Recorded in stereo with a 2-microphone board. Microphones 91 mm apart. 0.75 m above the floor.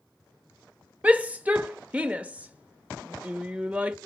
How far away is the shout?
About 0.7 m.